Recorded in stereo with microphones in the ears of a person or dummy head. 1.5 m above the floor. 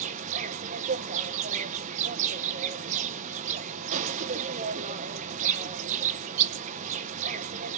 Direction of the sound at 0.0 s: 40° right (ahead or behind).